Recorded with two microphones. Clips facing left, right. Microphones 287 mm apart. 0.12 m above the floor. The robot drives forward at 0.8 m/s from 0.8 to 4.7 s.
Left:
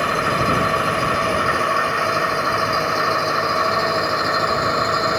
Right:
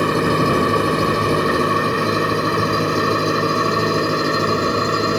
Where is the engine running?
45° right (ahead or behind); by 5.2 s 35° right (ahead or behind).